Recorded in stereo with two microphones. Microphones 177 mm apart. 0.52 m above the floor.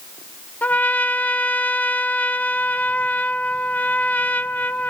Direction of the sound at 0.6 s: 10° left (ahead or behind).